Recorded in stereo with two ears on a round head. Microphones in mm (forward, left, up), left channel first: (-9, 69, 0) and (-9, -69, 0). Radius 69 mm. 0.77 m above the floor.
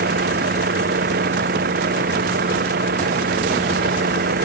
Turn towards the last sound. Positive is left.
turn(degrees=-65)  # may be behind; listen again after turning